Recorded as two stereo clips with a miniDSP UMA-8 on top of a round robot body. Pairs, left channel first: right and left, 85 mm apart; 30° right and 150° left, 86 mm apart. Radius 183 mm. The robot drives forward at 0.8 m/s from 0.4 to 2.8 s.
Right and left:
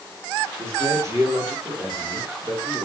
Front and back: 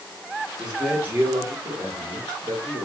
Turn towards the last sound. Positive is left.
turn(degrees=155)